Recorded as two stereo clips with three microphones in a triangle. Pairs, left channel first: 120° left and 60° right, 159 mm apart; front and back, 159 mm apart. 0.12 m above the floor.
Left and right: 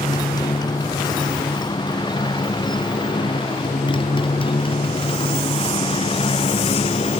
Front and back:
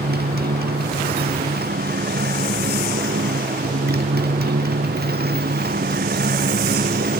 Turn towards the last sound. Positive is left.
turn(degrees=170)